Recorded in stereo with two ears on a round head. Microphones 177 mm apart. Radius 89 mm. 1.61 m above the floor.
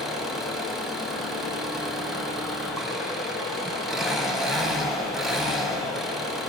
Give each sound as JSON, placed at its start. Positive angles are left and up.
{"t": 0.0, "sound": "an engine running", "side_deg": 0, "distance_m": 4.0}